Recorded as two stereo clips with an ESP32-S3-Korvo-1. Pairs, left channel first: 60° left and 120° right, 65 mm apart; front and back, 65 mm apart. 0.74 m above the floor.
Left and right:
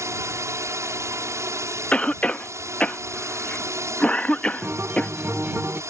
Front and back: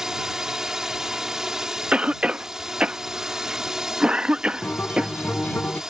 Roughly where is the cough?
Behind left.